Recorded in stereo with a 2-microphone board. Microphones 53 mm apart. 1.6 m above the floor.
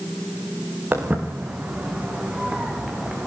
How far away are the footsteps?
About 5 m.